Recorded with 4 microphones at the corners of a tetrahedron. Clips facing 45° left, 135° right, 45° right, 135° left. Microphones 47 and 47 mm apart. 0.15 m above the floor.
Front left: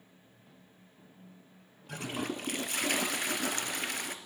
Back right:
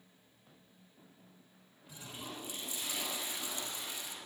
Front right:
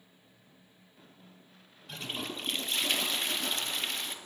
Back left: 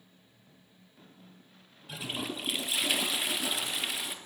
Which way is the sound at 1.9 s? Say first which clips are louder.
Front left 11 dB, back left 2 dB; 55° left.